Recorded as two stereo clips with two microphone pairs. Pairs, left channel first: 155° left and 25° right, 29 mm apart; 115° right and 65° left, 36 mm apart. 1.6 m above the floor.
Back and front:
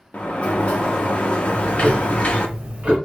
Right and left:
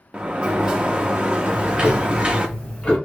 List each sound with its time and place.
0.1 s a sliding door: 120° left, 0.6 m
1.5 s ticking: 60° right, 1.2 m